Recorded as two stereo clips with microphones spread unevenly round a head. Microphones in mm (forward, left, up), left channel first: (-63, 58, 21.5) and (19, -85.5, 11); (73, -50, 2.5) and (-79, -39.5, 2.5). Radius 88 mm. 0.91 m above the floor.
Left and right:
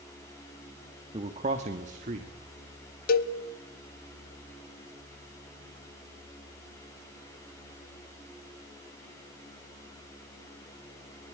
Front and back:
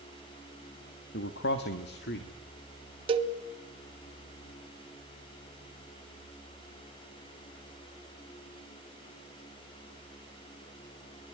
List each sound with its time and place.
1.1 s a man speaking: straight ahead, 1.4 m; by 2.3 s 15° right, 2.5 m
3.1 s a cowbell: 125° left, 1.0 m